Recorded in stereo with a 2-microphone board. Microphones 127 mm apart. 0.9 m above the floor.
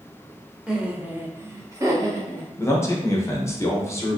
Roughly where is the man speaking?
Left.